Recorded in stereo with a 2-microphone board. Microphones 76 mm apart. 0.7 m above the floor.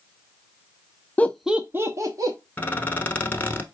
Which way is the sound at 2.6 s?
25° left (ahead or behind).